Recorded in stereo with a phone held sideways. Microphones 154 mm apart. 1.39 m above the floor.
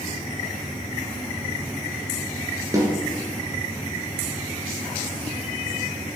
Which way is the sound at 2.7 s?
25° right (ahead or behind).